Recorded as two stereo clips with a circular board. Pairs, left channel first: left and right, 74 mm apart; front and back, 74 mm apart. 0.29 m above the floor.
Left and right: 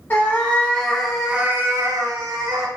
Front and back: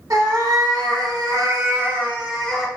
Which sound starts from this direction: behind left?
A cat meowing, at 0.1 s.